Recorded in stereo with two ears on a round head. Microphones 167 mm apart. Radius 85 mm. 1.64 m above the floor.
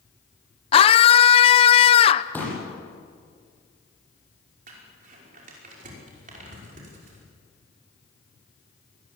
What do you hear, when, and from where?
0.7 s a scream: 30° left (ahead or behind), 0.8 m
2.3 s a pop: 10° left (ahead or behind), 8.5 m
4.7 s crumpling: 45° right (ahead or behind), 5.5 m